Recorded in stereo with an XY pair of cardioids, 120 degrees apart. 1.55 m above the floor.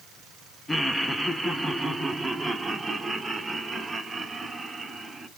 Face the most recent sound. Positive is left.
turn(degrees=-20)